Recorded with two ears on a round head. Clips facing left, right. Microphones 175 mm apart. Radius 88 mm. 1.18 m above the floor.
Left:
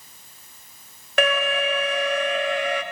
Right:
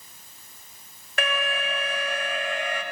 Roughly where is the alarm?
Left.